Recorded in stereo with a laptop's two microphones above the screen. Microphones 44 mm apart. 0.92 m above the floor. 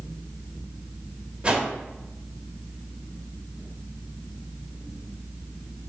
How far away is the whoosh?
About 1.1 m.